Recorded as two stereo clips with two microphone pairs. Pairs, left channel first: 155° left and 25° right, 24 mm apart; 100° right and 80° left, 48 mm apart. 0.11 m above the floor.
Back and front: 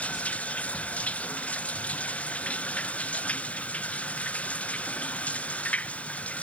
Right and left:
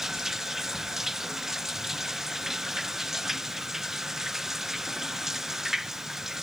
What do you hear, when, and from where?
0.0 s running water: 165° left